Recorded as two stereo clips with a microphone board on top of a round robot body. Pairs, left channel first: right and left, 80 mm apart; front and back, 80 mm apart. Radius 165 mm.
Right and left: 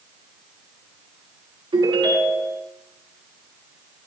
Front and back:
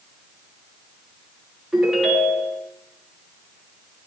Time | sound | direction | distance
1.7 | a ringtone | 90° left | 9.5 m